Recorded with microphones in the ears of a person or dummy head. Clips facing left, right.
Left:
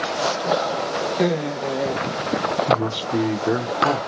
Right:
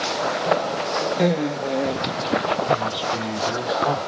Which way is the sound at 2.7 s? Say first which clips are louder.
Left 2 dB; 65° left (ahead or behind).